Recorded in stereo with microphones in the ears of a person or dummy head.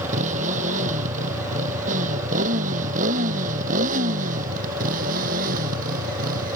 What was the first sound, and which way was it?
A motorcycle, 35° right (ahead or behind).